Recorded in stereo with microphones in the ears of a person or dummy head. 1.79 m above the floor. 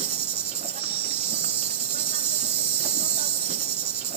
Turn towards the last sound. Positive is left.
turn(degrees=-35)  # may be behind; listen again after turning